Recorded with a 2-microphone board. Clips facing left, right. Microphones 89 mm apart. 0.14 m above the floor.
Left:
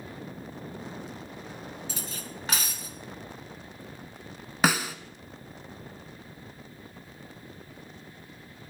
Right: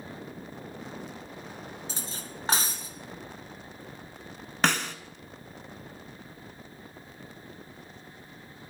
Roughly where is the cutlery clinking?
Right.